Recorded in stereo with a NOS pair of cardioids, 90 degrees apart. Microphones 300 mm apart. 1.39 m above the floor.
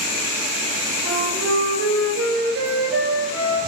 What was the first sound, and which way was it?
A flute, 50° right.